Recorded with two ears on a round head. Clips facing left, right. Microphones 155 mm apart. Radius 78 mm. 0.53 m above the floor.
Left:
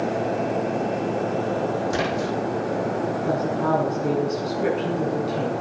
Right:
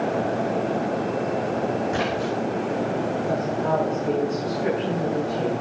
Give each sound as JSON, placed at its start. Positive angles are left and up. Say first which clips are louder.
{"t": 1.9, "sound": "a splash", "louder": "even", "side_deg": 50, "distance_m": 8.0}
{"t": 3.3, "sound": "a woman speaking", "louder": "left 3 dB", "side_deg": 75, "distance_m": 6.5}